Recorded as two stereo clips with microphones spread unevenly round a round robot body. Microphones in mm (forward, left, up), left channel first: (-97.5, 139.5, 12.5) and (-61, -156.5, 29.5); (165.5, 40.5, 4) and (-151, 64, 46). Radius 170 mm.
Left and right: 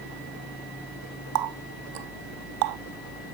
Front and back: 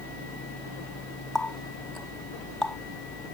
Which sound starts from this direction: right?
A running tap, at 1.4 s.